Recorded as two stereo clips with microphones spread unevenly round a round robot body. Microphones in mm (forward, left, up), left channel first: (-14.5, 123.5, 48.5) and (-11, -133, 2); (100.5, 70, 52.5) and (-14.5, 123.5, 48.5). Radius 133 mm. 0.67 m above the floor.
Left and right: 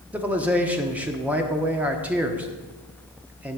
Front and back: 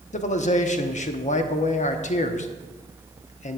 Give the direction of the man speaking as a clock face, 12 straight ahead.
12 o'clock.